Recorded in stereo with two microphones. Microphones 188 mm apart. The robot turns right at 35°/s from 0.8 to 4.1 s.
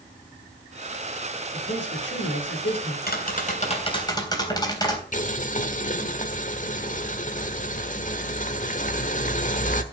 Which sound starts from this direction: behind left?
Tapping, at 3.1 s.